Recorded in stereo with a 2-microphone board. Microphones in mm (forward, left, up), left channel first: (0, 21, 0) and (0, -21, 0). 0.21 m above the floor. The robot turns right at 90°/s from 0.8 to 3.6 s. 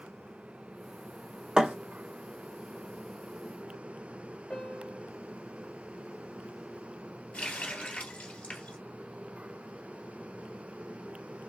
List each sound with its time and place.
1.6 s a thud: 20° right (ahead or behind), 2 m; by 1.8 s 35° right (ahead or behind), 2 m
4.5 s a piano: 20° left (ahead or behind), 2.5 m
7.3 s a running tap: 25° left (ahead or behind), 2.5 m